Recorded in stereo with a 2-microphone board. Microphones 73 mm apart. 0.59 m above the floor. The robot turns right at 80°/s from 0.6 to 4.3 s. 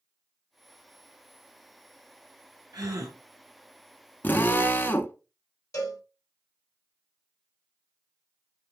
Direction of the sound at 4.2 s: 25° left (ahead or behind).